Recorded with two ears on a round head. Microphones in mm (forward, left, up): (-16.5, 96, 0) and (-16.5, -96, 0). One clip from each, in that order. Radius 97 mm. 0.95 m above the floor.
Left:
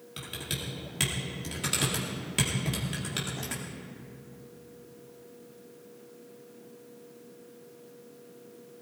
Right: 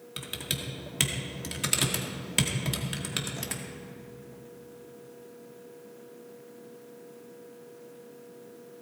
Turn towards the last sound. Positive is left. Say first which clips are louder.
# right 2 dB
turn(degrees=-30)  # may be behind; listen again after turning